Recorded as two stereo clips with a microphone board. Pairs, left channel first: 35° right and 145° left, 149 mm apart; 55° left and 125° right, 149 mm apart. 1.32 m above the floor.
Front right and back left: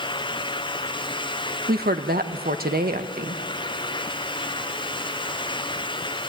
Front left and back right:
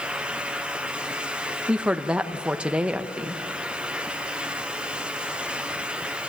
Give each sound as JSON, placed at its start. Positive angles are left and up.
{"t": 1.7, "sound": "a woman speaking", "azimuth_deg": 155, "distance_m": 1.3}